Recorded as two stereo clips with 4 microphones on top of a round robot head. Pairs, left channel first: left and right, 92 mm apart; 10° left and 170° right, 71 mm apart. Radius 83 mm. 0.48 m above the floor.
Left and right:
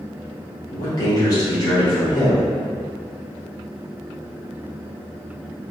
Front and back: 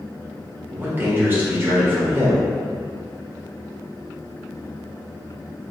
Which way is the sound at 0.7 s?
130° left.